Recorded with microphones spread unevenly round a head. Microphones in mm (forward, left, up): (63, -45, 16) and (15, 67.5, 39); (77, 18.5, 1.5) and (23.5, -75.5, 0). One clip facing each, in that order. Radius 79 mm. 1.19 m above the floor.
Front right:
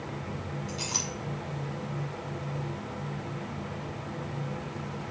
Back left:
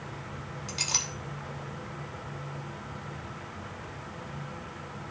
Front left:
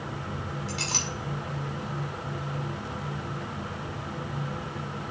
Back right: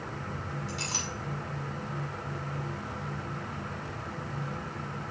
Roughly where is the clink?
Behind left.